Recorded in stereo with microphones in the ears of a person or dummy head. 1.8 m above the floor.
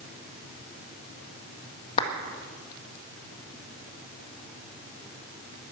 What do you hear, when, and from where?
2.0 s a clap: 30° left (ahead or behind), 1.7 m